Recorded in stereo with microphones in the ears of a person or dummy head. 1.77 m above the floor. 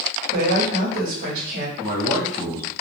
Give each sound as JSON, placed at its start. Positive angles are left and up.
{"t": 0.3, "sound": "a woman speaking", "side_deg": -50, "distance_m": 0.9}
{"t": 1.8, "sound": "a man speaking", "side_deg": -25, "distance_m": 1.3}